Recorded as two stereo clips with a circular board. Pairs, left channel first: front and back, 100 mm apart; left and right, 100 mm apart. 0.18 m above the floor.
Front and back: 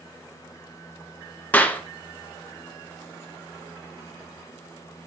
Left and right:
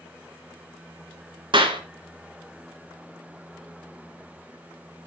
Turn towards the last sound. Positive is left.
turn(degrees=-70)